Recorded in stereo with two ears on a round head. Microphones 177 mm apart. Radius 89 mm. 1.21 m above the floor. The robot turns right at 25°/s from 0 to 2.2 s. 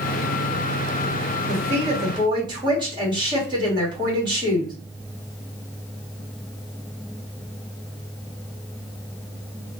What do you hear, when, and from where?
1.5 s a woman speaking: 40° right (ahead or behind), 1.8 m; by 4.7 s 25° right (ahead or behind), 1.8 m